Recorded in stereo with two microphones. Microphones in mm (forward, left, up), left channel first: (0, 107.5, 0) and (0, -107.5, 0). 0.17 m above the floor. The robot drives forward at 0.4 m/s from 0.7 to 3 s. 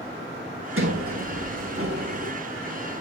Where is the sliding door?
75° right (ahead or behind), 2.5 m; by 2.3 s 85° right, 2 m.